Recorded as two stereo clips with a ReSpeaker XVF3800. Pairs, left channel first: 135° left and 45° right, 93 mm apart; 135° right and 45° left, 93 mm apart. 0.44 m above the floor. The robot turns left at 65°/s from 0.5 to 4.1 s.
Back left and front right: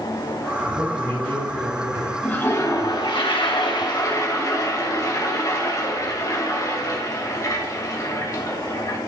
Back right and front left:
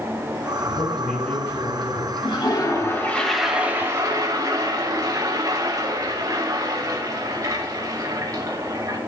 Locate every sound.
0.6 s a man speaking: 20° right, 3.5 m; by 2.1 s 115° right, 3.5 m
2.2 s a toilet flushing: 150° right, 2 m; by 9.0 s 85° left, 2 m